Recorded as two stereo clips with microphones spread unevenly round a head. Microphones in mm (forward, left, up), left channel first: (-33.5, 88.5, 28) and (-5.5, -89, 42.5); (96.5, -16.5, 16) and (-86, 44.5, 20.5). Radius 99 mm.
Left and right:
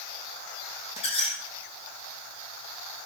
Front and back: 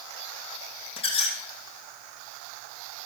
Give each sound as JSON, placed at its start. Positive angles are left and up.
{"t": 1.0, "sound": "a squeak", "azimuth_deg": 40, "distance_m": 2.5}